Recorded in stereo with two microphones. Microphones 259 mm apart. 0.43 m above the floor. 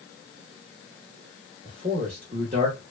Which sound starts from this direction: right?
A man speaking, at 1.6 s.